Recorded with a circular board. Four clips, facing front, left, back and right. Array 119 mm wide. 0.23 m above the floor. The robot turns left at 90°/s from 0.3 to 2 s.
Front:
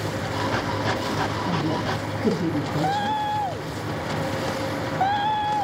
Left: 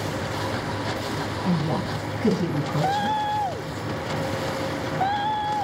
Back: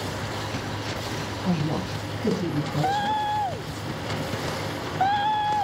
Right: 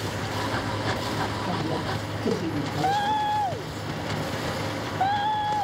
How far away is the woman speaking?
About 2.5 m.